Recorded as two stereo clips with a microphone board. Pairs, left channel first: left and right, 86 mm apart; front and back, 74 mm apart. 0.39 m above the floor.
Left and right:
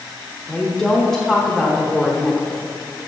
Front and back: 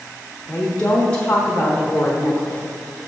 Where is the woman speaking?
5° left, 1.0 m.